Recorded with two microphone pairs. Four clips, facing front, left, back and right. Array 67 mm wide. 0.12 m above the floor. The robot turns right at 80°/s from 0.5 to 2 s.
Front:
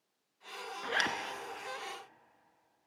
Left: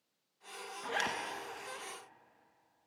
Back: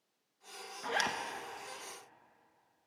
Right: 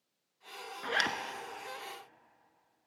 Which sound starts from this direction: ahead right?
A zipper, at 0.8 s.